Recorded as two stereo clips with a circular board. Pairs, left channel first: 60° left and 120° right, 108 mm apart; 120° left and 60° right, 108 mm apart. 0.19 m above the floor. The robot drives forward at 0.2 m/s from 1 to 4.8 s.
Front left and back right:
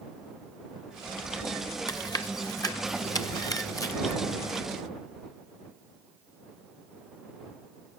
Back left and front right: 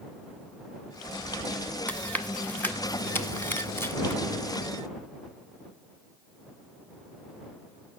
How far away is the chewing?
About 1.6 m.